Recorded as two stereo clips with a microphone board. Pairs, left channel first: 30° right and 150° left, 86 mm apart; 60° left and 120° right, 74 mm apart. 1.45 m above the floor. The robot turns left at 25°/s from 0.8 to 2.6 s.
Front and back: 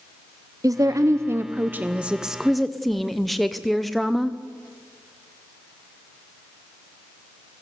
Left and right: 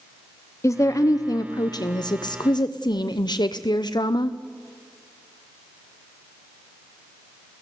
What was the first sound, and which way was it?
A woman speaking, 105° left.